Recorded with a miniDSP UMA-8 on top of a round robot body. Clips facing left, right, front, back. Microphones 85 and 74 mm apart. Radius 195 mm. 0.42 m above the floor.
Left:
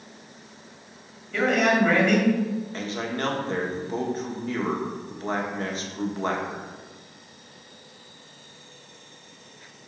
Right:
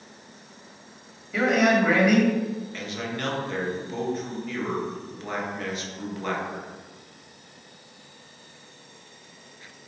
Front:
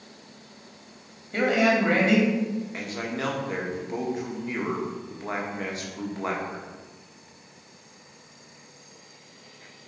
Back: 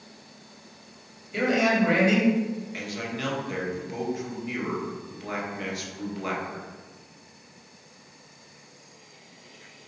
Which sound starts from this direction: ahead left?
A man speaking, at 2.7 s.